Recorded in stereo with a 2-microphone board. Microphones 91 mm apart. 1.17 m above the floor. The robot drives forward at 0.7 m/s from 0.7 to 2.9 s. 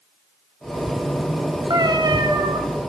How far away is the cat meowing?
About 1.4 m.